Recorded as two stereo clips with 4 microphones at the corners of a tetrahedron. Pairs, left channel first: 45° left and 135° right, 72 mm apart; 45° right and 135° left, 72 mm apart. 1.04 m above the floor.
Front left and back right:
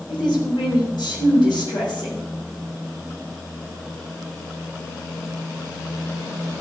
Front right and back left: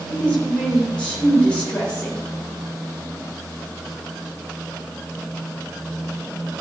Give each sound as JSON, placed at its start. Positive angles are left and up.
{"t": 0.1, "sound": "a woman speaking", "azimuth_deg": 30, "distance_m": 4.0}